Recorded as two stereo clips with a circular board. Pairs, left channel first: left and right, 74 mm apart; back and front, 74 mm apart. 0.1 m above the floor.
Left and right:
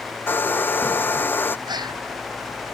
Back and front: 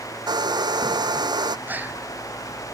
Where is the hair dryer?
25° left.